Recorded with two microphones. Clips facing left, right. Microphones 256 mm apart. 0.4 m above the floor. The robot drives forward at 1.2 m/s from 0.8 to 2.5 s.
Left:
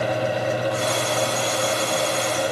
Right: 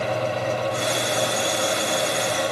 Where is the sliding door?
No sliding door in this recording.